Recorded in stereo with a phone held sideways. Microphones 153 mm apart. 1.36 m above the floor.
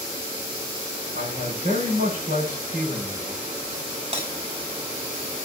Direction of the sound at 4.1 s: 45° right (ahead or behind).